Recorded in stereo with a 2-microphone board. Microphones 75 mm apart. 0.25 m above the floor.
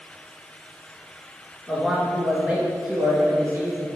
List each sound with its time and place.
1.7 s a man speaking: 5° right (ahead or behind), 2.5 m; by 3.9 s 30° right (ahead or behind), 3 m